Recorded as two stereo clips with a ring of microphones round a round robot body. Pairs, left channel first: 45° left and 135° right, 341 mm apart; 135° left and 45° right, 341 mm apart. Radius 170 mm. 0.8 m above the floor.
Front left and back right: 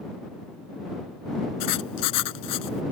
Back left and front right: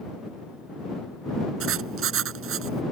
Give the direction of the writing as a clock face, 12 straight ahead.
12 o'clock.